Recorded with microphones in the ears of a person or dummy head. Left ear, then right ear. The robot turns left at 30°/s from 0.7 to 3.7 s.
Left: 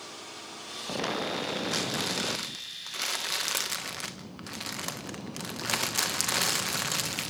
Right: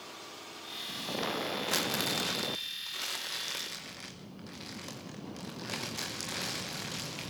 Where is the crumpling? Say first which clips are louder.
Right 1 dB; 30° right (ahead or behind), 1.3 m; by 7.3 s 30° left (ahead or behind), 1.3 m.